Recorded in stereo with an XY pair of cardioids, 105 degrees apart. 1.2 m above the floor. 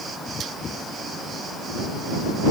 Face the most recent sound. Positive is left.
No sound to turn to.